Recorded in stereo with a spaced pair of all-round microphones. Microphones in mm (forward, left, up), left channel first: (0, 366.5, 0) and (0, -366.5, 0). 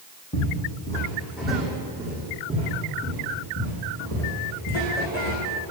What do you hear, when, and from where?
0.3 s footsteps: 10° left (ahead or behind), 4 m; by 5.4 s 20° right (ahead or behind), 7 m